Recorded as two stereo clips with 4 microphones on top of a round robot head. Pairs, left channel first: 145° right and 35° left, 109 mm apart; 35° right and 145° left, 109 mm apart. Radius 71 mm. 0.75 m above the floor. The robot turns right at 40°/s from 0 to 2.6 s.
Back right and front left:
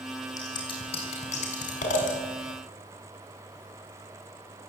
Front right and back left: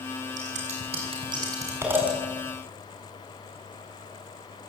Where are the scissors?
155° left, 6 m; by 2.2 s 130° right, 6 m.